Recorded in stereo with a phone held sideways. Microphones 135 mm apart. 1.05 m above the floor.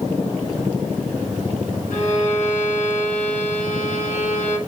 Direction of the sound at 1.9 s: 70° left (ahead or behind).